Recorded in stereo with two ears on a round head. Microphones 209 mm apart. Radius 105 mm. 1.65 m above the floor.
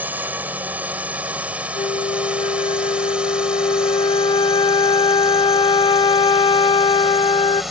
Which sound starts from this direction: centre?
A drone, at 0.0 s.